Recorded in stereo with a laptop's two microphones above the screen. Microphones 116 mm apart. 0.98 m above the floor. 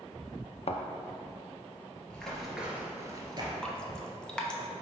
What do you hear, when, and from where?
0.7 s a thud: 60° left (ahead or behind), 0.5 m
2.1 s running footsteps: 10° left (ahead or behind), 1.3 m; by 3.5 s 40° right (ahead or behind), 1.3 m
3.6 s dripping: 5° left (ahead or behind), 0.5 m